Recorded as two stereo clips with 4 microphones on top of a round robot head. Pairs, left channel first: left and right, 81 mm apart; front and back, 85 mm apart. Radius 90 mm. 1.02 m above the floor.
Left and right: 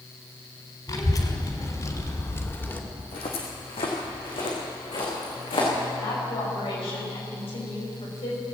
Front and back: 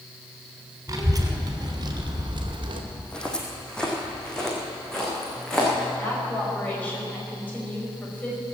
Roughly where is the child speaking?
Behind left.